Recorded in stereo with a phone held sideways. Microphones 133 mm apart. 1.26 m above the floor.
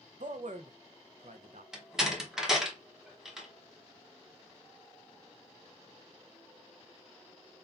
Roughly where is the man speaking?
Right.